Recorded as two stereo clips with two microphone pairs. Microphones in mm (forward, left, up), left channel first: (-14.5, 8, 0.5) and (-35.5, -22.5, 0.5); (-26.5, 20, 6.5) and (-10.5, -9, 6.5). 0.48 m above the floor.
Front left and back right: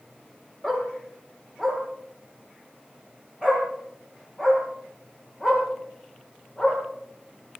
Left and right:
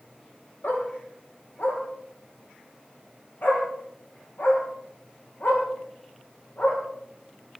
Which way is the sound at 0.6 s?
130° left.